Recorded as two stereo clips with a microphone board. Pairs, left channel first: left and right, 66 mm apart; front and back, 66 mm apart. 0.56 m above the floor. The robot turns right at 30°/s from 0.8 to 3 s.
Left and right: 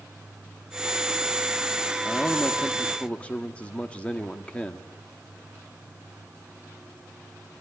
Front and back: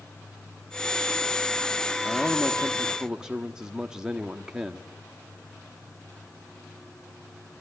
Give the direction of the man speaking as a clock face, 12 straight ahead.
9 o'clock.